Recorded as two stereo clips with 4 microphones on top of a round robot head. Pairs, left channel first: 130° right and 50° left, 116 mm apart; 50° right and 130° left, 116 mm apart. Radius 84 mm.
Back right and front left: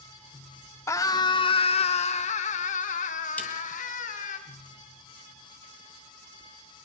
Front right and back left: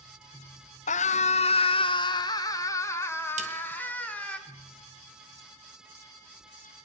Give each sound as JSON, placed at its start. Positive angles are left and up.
{"t": 0.9, "sound": "a scream", "azimuth_deg": -65, "distance_m": 2.0}
{"t": 3.4, "sound": "a snare drum", "azimuth_deg": 155, "distance_m": 5.5}